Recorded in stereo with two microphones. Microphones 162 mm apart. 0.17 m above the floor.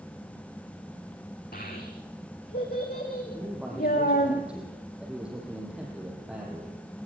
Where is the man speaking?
5° right (ahead or behind), 5.5 m.